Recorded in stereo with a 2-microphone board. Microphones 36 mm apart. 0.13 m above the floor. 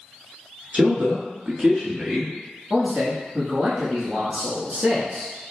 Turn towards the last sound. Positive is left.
turn(degrees=-35)  # may be behind; listen again after turning